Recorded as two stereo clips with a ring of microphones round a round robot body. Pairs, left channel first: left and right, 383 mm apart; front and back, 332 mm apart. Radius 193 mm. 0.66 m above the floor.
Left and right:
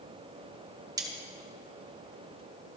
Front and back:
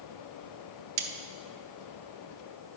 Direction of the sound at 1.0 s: 170° right.